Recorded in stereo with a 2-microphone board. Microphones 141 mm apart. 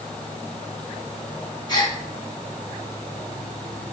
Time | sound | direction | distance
1.7 | a gasp | 30° left (ahead or behind) | 2.5 m